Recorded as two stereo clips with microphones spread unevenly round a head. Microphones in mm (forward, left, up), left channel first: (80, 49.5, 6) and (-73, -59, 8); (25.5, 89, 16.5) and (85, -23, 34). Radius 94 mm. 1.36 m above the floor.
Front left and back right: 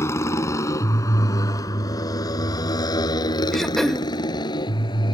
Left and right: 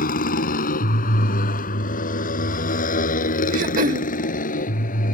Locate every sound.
0.0 s a motorcycle: 110° left; by 5.1 s 105° left
3.5 s throat clearing: 55° right